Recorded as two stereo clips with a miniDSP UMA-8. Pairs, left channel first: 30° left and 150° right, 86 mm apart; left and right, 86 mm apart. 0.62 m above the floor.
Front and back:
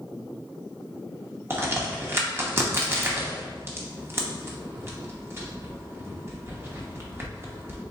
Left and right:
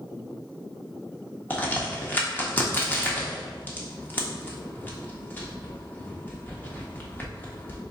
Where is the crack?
155° left, 0.9 m.